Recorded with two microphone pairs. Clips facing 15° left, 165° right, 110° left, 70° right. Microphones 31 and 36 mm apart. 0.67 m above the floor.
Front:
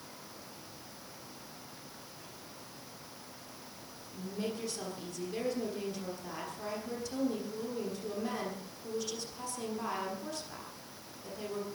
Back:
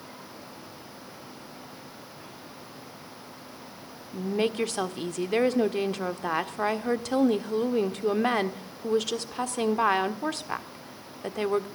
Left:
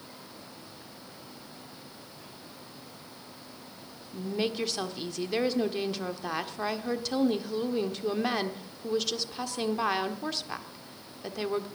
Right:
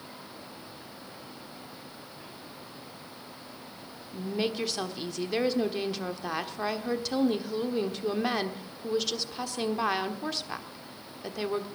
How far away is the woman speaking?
About 1.4 m.